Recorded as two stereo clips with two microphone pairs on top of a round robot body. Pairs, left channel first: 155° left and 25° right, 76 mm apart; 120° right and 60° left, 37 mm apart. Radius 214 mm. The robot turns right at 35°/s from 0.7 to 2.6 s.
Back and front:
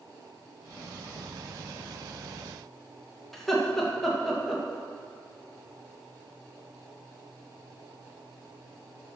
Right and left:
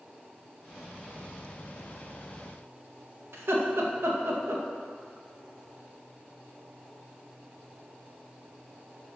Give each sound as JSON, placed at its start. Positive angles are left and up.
{"t": 3.3, "sound": "laughter", "azimuth_deg": 65, "distance_m": 2.0}